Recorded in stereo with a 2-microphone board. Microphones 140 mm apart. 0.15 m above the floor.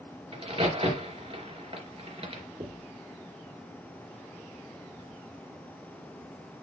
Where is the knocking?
30° right (ahead or behind), 1.3 m.